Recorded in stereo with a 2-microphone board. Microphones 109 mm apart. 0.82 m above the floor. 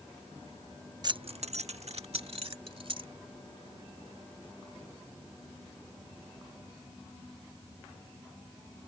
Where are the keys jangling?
40° right (ahead or behind); by 3.1 s 55° right (ahead or behind).